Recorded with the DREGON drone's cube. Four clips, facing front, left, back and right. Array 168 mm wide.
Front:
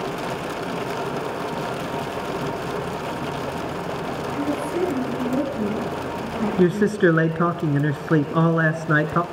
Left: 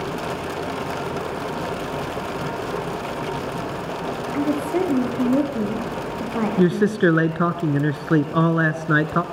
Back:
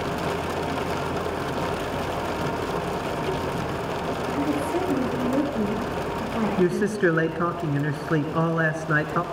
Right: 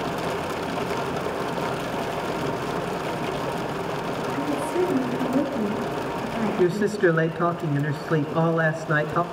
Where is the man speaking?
50° left, 1.1 m.